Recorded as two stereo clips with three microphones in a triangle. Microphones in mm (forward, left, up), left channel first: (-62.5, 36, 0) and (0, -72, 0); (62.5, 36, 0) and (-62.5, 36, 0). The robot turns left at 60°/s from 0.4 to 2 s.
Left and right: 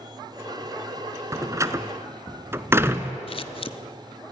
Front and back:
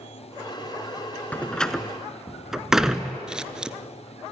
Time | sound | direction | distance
1.3 | a door slam | 60° right | 0.9 m
3.3 | scissors | 95° left | 0.6 m